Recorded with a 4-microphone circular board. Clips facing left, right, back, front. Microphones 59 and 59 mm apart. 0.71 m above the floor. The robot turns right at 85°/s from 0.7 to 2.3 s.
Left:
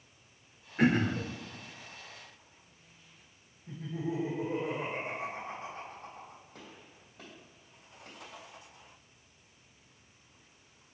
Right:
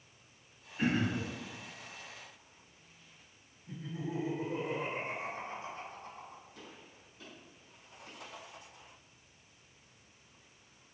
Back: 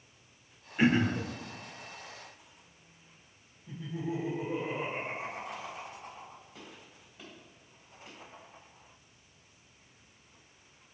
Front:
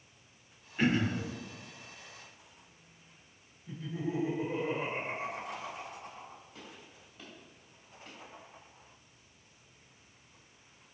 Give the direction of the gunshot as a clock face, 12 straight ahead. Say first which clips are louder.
Left 1 dB, even; 9 o'clock.